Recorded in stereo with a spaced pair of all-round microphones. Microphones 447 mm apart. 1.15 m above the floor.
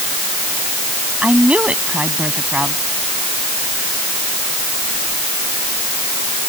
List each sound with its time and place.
1.2 s a woman speaking: 5° right (ahead or behind)